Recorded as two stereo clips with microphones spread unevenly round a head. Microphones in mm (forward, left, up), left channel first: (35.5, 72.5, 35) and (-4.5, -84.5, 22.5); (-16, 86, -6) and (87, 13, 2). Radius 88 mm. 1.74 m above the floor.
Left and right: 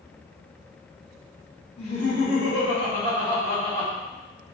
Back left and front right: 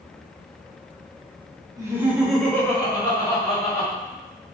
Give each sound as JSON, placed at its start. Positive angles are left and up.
{"t": 1.8, "sound": "laughter", "azimuth_deg": 25, "distance_m": 1.0}